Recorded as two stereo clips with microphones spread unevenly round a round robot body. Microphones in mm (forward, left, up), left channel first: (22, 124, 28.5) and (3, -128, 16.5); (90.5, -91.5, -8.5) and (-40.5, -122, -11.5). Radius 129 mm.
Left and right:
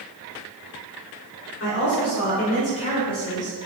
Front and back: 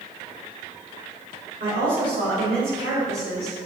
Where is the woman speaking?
130° left, 3 m; by 3.7 s 165° left, 4 m.